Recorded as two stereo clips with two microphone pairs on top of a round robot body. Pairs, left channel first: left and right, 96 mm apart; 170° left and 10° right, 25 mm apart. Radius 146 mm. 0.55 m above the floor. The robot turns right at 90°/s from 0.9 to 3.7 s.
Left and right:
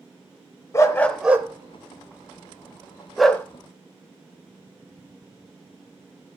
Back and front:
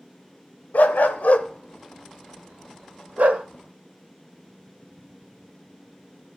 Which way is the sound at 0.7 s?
155° left.